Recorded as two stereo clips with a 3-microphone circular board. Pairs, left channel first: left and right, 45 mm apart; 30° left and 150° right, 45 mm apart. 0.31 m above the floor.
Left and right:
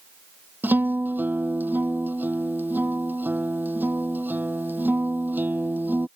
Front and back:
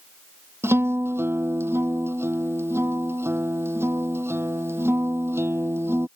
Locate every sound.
0.6 s a guitar: 135° right